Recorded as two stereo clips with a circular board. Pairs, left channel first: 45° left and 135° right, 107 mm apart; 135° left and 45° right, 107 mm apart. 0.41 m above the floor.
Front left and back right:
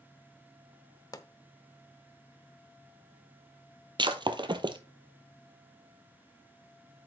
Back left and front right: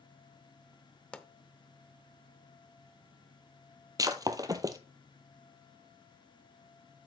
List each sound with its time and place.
1.1 s a pop: 60° left, 0.7 m
4.0 s breaking glass: 100° right, 0.8 m